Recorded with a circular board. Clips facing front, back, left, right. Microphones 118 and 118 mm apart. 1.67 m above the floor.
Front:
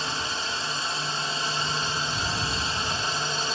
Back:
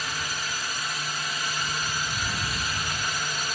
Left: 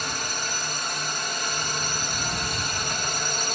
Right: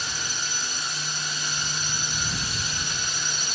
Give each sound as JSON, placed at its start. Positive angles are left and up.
{"t": 0.0, "sound": "a drone", "azimuth_deg": 60}